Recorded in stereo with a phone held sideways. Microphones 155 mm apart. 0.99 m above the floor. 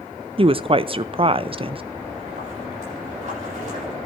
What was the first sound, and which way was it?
A woman speaking, 35° right (ahead or behind).